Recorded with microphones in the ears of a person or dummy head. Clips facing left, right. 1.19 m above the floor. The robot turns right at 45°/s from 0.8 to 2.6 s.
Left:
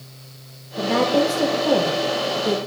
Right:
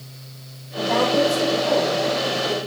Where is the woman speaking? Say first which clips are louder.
Left 1 dB; 25° left (ahead or behind), 0.7 m; by 2.6 s 75° left (ahead or behind), 0.7 m.